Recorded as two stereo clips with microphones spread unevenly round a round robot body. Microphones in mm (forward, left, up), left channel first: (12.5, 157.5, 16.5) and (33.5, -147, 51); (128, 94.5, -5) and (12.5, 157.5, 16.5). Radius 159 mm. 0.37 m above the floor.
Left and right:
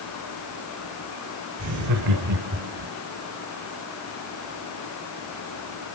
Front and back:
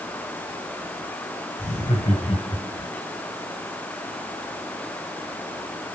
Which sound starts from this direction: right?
Laughter, at 1.6 s.